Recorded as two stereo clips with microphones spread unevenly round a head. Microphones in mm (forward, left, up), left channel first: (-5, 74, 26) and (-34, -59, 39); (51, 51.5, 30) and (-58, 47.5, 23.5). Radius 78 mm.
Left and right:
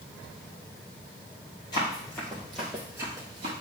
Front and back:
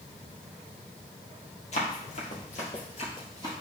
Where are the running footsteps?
10° left, 3 m; by 3.5 s 60° right, 2.5 m.